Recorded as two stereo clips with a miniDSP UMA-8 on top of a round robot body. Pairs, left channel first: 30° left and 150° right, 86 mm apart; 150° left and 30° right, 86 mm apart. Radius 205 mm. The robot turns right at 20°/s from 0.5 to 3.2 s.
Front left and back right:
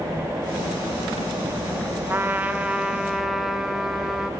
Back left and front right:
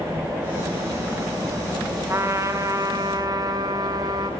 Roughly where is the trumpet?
Right.